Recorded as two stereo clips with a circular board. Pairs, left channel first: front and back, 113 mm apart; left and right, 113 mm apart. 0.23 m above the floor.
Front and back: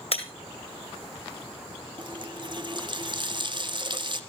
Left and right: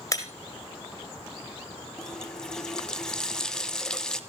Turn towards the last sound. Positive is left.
turn(degrees=170)